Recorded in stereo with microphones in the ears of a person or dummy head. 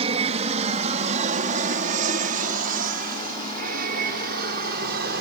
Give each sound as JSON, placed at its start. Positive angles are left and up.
{"t": 0.0, "sound": "an aircraft", "side_deg": -35}